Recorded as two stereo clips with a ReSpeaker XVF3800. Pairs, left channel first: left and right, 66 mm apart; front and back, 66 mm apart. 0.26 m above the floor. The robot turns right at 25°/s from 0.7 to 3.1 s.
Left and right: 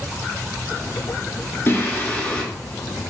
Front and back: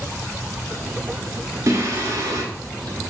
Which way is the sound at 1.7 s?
145° left.